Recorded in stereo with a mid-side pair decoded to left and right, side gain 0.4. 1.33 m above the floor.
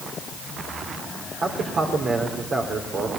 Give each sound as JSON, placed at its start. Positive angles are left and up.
{"t": 1.4, "sound": "a man speaking", "azimuth_deg": -60, "distance_m": 3.5}